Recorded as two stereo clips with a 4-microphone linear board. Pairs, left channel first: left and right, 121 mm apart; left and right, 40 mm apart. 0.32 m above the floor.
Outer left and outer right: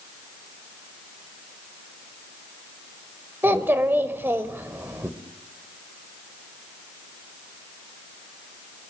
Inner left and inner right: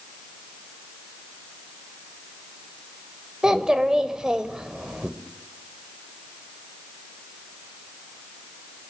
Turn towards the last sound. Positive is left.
turn(degrees=-20)  # may be behind; listen again after turning